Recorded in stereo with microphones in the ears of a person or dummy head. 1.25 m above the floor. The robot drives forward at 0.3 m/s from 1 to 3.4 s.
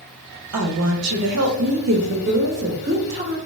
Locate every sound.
0.5 s a woman speaking: 80° right, 0.7 m; by 3.4 s 40° right (ahead or behind), 1.0 m